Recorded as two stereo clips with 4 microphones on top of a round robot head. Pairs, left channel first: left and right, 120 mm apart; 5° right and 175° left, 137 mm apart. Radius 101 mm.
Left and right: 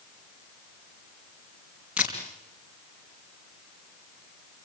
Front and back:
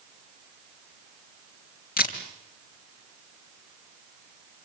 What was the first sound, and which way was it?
A camera shutter, 5° right.